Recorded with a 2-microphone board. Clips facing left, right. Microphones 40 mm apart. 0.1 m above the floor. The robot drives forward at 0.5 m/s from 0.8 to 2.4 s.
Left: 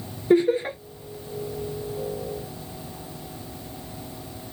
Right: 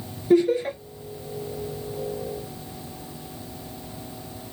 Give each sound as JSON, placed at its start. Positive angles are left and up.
{"t": 0.3, "sound": "laughter", "side_deg": 25, "distance_m": 1.7}